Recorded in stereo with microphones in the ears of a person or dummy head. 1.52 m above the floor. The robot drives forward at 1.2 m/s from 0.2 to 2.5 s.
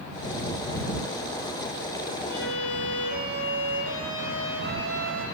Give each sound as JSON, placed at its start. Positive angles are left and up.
{"t": 2.3, "sound": "a violin", "side_deg": 90, "distance_m": 5.0}